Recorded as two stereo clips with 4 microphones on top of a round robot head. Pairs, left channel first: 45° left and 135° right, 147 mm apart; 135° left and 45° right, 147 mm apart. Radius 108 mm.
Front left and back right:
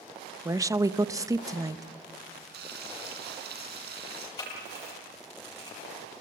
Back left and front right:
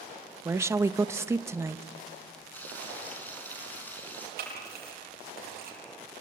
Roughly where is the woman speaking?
Right.